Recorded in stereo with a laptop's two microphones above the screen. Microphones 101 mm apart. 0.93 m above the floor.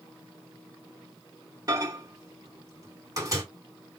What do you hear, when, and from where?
1.7 s a microwave: 35° right (ahead or behind), 1.6 m